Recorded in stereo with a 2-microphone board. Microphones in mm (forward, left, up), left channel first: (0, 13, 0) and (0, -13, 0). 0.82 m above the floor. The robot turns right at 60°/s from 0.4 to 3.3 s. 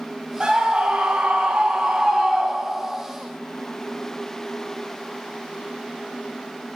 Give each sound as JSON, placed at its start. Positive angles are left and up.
{"t": 0.4, "sound": "a scream", "azimuth_deg": -140, "distance_m": 5.0}